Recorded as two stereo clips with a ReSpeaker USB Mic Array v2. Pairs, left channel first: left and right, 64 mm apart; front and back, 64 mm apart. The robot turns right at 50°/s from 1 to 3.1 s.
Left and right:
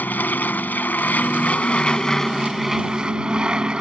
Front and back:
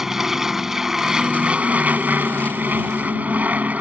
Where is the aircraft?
105° left; by 3.8 s 150° right.